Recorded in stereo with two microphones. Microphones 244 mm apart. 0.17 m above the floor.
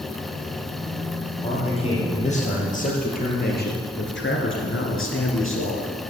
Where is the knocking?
No knocking in this recording.